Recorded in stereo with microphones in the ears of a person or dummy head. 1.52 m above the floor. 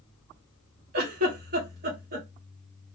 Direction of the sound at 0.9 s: 50° right (ahead or behind).